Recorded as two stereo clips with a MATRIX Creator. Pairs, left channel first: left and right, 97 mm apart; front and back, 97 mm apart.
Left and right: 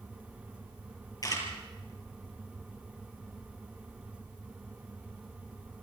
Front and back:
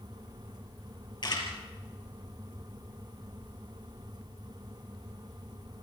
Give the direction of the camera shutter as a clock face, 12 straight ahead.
11 o'clock.